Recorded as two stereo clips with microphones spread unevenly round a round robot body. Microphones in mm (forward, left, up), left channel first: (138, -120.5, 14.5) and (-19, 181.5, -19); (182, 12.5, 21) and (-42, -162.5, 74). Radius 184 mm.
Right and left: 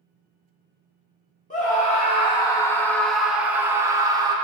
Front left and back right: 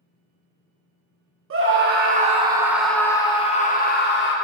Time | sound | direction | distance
1.5 | a scream | 125° right | 1.0 m